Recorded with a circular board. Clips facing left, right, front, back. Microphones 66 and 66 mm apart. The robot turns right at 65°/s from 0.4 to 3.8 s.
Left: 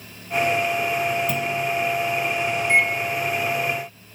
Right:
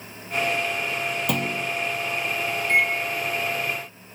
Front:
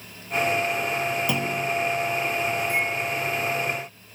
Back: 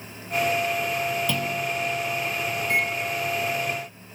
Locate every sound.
1.3 s a clunk: 70° right, 1.4 m; by 1.7 s 45° right, 1.4 m
2.6 s a microwave: 165° left, 4 m; by 2.9 s 175° right, 4 m